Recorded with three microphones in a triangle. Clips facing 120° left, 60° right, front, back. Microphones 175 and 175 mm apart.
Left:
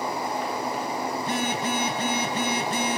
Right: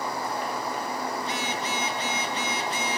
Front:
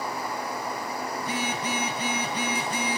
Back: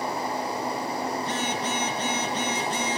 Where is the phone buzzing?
80° left, 6 m.